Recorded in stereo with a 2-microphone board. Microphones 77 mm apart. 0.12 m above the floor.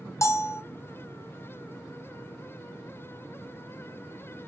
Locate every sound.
0.2 s a bell: 40° left (ahead or behind), 0.8 m